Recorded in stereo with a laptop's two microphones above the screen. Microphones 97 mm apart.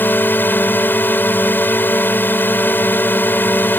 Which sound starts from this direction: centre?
A drone, at 0.0 s.